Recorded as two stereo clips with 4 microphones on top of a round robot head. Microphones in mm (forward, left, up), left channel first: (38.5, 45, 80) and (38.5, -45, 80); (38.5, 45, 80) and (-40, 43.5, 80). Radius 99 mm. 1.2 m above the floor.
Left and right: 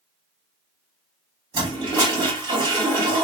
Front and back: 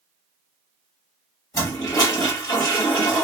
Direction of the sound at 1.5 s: 55° right.